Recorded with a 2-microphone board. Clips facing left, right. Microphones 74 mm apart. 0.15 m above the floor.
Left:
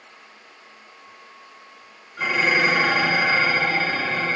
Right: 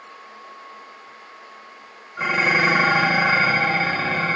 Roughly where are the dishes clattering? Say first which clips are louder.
Right 1 dB; right.